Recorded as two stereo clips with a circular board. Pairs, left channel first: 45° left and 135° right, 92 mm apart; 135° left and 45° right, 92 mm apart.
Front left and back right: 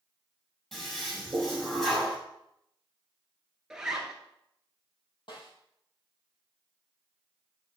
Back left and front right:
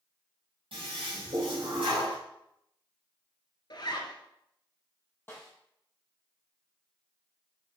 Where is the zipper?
145° left, 1.5 m.